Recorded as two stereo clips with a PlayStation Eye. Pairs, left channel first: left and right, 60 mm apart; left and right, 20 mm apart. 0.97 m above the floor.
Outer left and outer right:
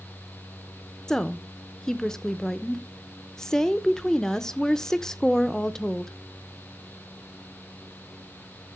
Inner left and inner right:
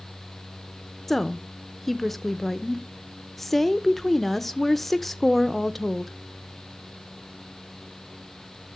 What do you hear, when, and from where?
1.1 s a woman speaking: 10° left (ahead or behind), 0.7 m